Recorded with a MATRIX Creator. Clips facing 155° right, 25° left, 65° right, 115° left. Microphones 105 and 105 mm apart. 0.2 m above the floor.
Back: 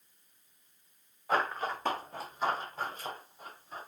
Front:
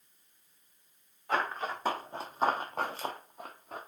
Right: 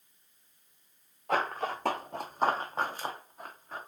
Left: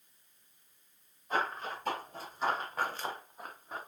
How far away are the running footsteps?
About 1.1 m.